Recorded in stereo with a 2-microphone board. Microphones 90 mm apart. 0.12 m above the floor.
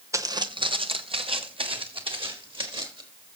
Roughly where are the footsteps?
Right.